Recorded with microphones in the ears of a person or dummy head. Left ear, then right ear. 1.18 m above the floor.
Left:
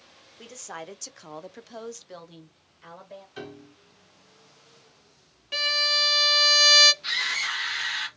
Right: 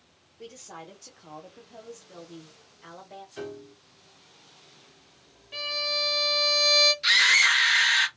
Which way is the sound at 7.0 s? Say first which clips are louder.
Right 8 dB; 50° right (ahead or behind).